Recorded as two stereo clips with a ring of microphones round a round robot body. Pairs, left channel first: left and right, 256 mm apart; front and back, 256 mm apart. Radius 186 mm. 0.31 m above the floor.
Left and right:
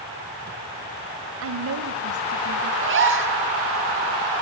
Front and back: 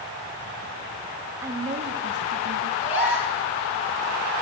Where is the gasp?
50° right, 4 m.